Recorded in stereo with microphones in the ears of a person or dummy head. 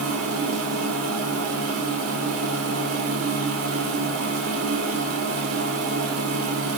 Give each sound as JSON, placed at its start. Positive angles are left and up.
{"t": 0.0, "sound": "a machine running", "side_deg": -85, "distance_m": 4.5}